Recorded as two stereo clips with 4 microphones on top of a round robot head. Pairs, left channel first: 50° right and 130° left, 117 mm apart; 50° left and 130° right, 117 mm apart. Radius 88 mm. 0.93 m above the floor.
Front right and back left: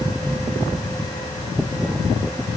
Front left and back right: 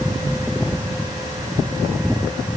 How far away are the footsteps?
No footsteps in this recording.